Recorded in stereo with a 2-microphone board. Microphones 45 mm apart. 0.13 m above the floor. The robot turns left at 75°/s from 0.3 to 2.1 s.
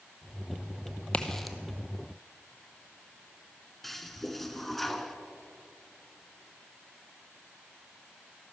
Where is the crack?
25° left (ahead or behind), 0.8 m; by 1.6 s 5° right (ahead or behind), 0.8 m.